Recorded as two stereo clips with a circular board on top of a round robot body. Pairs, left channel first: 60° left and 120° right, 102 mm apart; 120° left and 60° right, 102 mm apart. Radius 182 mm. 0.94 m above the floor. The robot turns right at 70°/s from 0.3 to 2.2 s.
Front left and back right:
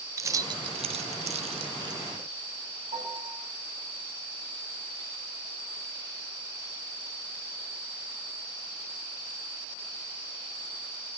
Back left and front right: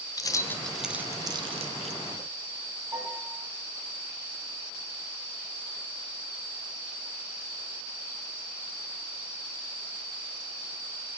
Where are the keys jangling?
Straight behind, 0.7 m; by 2.0 s 65° right, 0.7 m.